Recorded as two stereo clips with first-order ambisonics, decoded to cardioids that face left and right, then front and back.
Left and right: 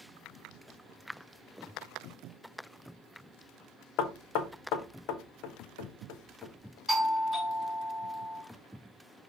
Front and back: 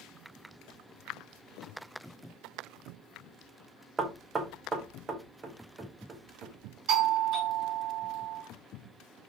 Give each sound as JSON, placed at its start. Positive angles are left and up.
{"t": 4.0, "sound": "knocking", "azimuth_deg": 110, "distance_m": 0.5}
{"t": 6.9, "sound": "a doorbell", "azimuth_deg": 175, "distance_m": 2.0}